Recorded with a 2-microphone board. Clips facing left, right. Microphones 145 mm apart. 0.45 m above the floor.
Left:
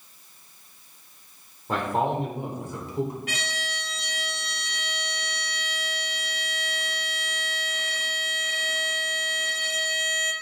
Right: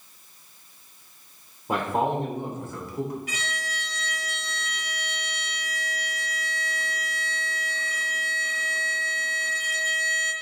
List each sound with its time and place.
1.7 s a man speaking: 15° right (ahead or behind), 1.0 m; by 3.2 s 30° left (ahead or behind), 1.4 m
3.3 s a violin: 65° left (ahead or behind), 1.0 m